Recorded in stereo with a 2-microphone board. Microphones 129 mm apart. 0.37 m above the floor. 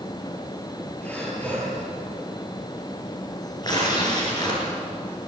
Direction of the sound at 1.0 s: 10° left (ahead or behind).